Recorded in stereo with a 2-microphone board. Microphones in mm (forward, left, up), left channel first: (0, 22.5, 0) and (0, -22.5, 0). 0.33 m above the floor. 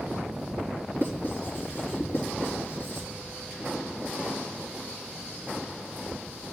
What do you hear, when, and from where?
0.9 s writing: 55° left (ahead or behind), 4 m